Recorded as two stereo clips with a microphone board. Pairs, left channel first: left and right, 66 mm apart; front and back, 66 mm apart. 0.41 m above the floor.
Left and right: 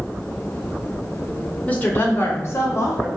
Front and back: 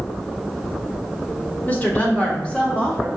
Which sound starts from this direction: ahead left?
A woman speaking, at 1.7 s.